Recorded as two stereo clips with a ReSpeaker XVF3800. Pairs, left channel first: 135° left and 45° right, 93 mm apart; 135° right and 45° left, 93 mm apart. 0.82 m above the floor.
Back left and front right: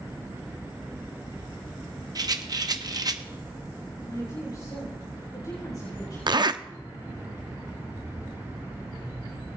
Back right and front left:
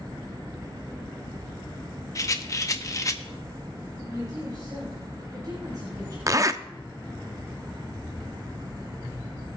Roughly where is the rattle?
Right.